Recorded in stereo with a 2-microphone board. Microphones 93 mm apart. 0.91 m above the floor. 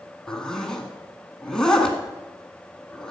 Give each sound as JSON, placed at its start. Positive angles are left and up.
{"t": 0.3, "sound": "a zipper", "side_deg": 5, "distance_m": 1.6}